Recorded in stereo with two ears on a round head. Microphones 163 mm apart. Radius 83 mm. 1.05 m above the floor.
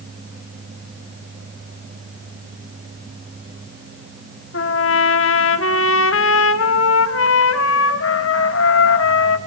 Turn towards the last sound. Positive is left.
turn(degrees=75)  # may be behind; listen again after turning